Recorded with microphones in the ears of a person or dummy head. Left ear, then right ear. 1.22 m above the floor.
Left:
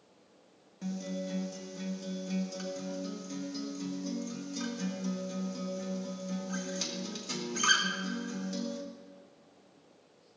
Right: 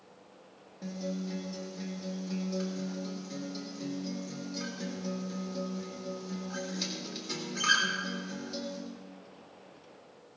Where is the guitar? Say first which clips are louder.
Even; 70° left (ahead or behind), 2.0 m.